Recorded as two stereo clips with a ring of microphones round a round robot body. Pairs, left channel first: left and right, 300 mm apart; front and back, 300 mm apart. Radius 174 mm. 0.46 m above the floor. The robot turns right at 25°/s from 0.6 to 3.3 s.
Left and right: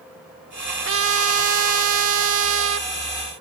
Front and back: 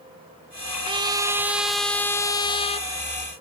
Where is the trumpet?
110° right; by 2.9 s 60° right.